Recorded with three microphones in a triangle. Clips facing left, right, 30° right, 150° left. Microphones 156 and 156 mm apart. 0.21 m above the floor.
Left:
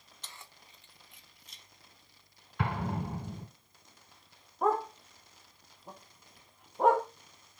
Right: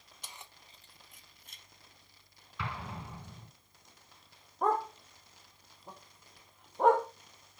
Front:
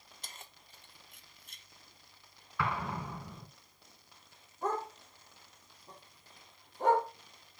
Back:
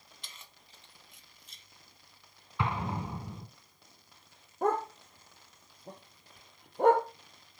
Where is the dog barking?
Straight behind, 2 m.